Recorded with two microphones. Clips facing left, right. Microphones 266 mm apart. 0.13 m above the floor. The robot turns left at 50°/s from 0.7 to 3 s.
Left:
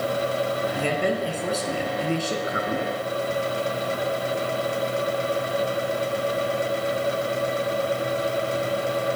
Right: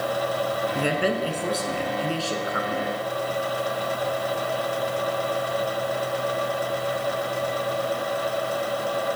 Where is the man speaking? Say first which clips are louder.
Right 2 dB; 15° right (ahead or behind), 1.2 m; by 3.0 s 30° left (ahead or behind), 1.2 m.